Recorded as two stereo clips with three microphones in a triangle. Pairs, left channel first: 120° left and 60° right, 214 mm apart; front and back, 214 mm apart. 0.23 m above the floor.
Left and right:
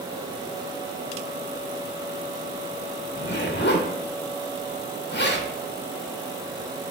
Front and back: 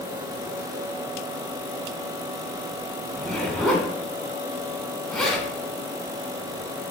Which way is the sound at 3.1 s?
90° left.